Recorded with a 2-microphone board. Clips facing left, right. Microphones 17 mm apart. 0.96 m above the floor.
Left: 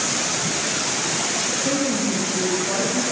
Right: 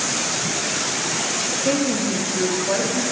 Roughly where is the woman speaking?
Right.